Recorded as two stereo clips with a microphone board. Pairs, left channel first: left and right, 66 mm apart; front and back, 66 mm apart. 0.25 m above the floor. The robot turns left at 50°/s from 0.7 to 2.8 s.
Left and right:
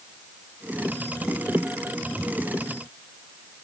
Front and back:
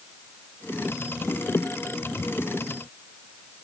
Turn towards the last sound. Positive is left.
No sound to turn to.